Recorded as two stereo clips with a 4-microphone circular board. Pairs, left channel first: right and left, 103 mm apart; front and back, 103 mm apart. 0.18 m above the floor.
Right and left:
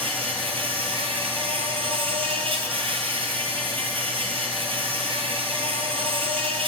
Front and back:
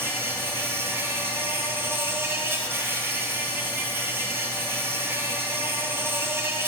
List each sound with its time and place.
0.0 s an insect: 115° left, 1.0 m